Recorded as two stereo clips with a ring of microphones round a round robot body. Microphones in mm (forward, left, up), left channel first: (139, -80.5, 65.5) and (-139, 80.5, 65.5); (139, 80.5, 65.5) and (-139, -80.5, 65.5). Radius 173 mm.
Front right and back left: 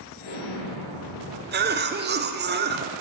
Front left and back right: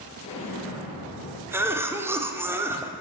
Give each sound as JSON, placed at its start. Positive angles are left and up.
{"t": 0.2, "sound": "an explosion", "azimuth_deg": -40, "distance_m": 3.5}
{"t": 1.5, "sound": "a cough", "azimuth_deg": 135, "distance_m": 0.9}